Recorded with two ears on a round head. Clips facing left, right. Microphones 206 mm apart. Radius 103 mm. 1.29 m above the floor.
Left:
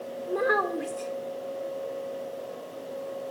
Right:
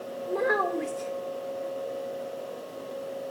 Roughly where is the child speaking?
Centre.